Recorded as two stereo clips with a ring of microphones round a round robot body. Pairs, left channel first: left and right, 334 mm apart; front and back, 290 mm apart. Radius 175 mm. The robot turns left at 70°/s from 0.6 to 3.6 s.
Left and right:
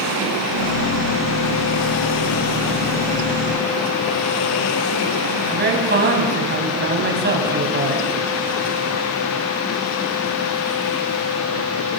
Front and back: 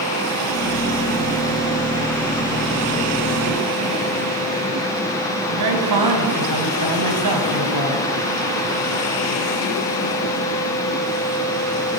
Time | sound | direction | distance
5.5 | a man speaking | 150° right | 4.5 m